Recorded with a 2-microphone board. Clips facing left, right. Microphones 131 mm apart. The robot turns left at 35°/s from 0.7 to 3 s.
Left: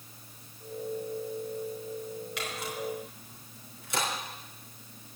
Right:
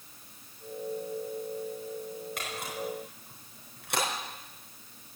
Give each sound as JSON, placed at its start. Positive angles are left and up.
{"t": 2.4, "sound": "a camera shutter", "side_deg": -50, "distance_m": 4.5}